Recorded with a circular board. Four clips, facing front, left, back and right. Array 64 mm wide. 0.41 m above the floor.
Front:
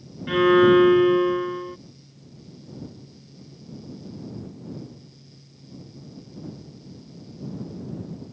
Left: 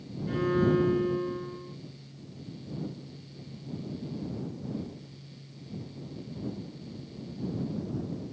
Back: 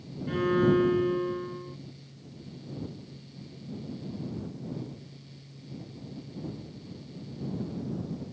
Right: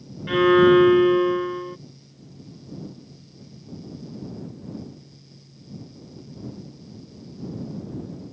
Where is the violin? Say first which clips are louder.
Right 11 dB, front 9 dB; 45° right.